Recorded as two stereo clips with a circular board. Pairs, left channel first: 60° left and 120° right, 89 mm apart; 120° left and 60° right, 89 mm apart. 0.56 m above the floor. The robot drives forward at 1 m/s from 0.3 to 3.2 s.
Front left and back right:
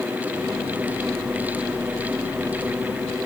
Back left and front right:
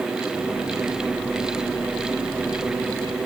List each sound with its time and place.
Only background noise.